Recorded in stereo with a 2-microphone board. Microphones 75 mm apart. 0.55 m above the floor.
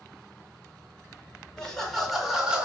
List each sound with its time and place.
1.6 s laughter: 10° left (ahead or behind), 1.8 m; by 2.6 s 15° right (ahead or behind), 1.3 m